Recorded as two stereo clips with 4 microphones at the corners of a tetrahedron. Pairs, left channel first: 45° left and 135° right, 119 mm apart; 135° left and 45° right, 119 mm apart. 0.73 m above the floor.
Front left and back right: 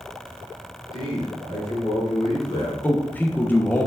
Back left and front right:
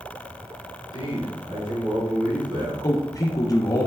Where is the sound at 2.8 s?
110° left, 0.5 m.